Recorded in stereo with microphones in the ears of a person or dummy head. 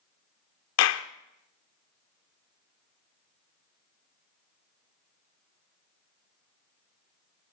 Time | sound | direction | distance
0.8 | a clap | 65° left (ahead or behind) | 0.8 m